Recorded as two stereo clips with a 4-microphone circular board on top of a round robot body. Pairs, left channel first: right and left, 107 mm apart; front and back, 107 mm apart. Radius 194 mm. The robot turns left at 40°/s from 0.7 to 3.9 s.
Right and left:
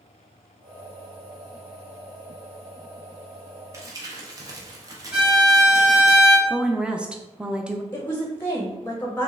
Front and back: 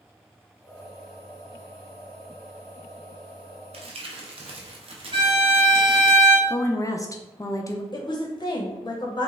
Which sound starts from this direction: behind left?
Crumpling, at 3.7 s.